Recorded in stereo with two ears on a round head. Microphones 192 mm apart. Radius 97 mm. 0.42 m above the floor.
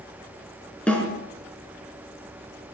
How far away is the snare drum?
About 5.5 m.